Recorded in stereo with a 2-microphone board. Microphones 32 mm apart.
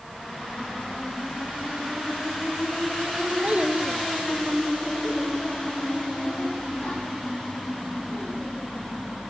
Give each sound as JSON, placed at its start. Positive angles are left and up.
{"t": 3.4, "sound": "a child speaking", "side_deg": -45, "distance_m": 0.7}